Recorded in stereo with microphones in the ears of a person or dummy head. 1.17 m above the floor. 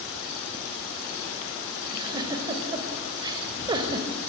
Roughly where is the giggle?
Right.